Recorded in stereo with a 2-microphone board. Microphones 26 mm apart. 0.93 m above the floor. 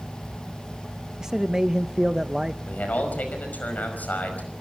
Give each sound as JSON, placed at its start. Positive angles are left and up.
{"t": 1.2, "sound": "a man speaking", "side_deg": -25, "distance_m": 0.6}
{"t": 2.7, "sound": "a man speaking", "side_deg": 85, "distance_m": 5.0}